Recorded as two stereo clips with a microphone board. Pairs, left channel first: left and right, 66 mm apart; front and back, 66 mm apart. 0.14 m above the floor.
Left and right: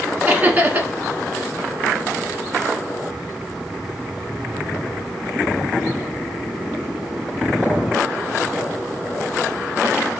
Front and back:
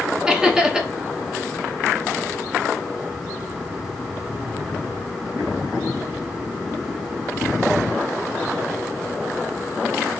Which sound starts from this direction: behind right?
Laughter, at 0.3 s.